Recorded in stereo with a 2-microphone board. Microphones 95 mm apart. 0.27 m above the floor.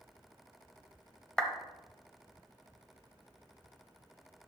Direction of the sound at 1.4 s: 5° left (ahead or behind).